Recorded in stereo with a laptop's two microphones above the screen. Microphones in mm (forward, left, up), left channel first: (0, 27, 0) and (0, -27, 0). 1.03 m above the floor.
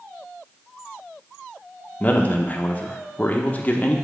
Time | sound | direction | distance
2.0 | a man speaking | 30° left (ahead or behind) | 1.0 m